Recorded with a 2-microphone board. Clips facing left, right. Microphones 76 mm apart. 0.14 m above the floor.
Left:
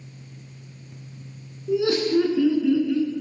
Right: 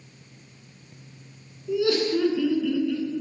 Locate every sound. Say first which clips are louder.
1.7 s laughter: left 2 dB; 30° left (ahead or behind), 1.2 m; by 3.1 s 10° left (ahead or behind), 1.5 m